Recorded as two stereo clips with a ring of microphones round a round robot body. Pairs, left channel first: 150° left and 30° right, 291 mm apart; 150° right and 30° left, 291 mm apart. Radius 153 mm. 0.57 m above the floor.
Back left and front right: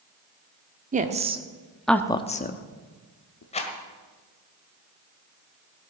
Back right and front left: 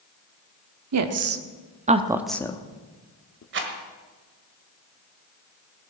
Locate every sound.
0.9 s a woman speaking: 30° left, 1.2 m; by 3.4 s 175° left, 1.2 m
3.5 s a rattle: 80° left, 1.7 m